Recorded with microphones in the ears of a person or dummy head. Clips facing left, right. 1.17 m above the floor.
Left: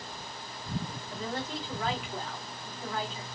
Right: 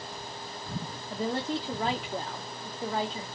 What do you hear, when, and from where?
1.1 s a woman speaking: 30° right (ahead or behind), 0.6 m